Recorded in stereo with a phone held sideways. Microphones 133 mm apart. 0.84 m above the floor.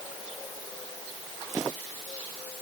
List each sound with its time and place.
Only background noise.